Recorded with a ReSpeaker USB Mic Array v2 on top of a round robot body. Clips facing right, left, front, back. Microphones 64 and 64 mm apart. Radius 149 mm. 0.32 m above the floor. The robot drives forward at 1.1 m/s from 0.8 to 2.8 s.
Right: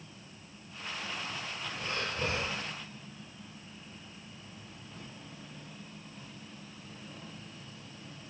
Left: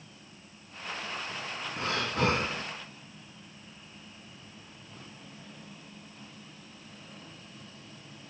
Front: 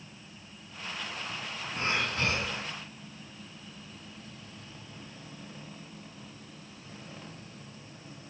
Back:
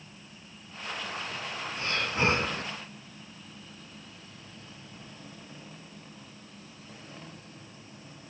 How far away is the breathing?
About 0.6 m.